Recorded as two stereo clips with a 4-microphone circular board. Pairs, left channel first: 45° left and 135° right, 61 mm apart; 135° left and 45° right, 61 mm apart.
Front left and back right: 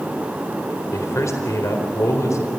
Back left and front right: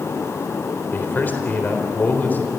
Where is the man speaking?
75° left, 4 m.